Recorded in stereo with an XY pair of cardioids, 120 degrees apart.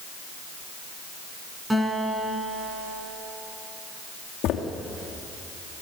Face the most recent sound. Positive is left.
turn(degrees=70)